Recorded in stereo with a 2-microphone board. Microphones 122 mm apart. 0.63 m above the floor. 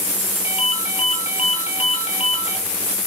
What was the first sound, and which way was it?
A ringtone, 60° left (ahead or behind).